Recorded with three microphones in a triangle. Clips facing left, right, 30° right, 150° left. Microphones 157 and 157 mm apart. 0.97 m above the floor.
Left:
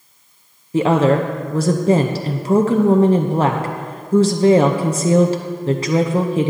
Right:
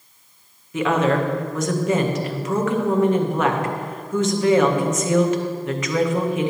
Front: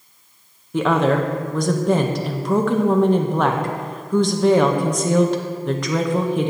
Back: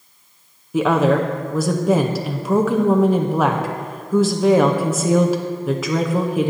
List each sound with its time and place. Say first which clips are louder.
0.7 s a woman speaking: left 5 dB, back 2 dB; 70° left, 0.6 m